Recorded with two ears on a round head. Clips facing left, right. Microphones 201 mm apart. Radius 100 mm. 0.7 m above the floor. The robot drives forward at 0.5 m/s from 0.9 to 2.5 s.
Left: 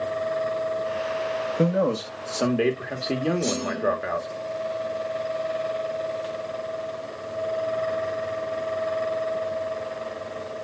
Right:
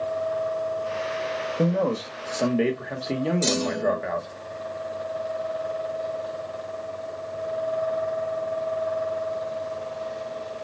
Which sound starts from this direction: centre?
A man speaking, at 1.6 s.